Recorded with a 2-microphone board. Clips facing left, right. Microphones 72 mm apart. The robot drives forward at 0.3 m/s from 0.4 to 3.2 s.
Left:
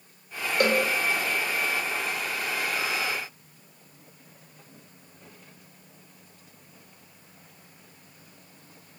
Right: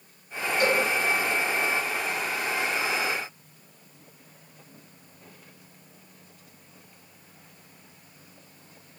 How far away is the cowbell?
About 0.5 m.